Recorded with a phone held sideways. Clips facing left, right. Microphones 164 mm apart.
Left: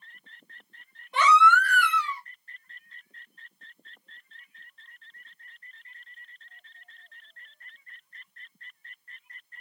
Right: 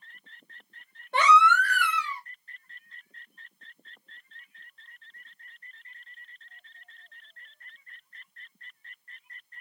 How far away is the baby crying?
About 1.3 m.